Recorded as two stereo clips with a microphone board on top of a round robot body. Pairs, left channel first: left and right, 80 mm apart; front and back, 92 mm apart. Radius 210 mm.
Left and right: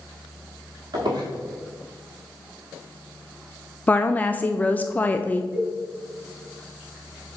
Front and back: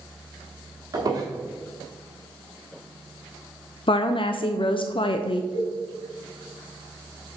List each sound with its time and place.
0.9 s a squeak: 125° right, 1.3 m
3.9 s a woman speaking: 20° left, 0.6 m
5.5 s a cowbell: 10° right, 1.6 m